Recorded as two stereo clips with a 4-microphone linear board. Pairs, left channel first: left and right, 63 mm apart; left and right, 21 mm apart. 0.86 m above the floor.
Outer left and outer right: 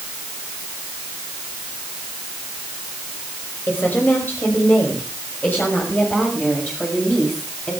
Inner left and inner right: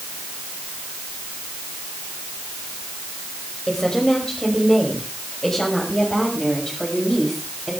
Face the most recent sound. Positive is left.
turn(degrees=25)  # may be behind; listen again after turning